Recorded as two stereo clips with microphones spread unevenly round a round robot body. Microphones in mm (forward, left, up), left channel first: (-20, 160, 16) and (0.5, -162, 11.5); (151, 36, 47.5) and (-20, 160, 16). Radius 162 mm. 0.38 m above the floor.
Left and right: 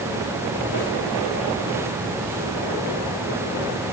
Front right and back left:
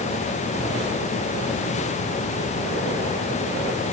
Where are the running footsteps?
No running footsteps in this recording.